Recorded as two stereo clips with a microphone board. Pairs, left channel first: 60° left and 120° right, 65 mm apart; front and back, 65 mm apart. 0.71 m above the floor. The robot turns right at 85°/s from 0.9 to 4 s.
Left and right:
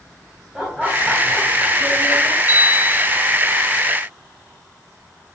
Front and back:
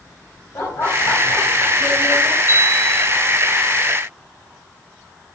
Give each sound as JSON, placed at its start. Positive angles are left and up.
{"t": 0.6, "sound": "laughter", "azimuth_deg": -35, "distance_m": 5.5}
{"t": 2.5, "sound": "a bell", "azimuth_deg": 40, "distance_m": 3.5}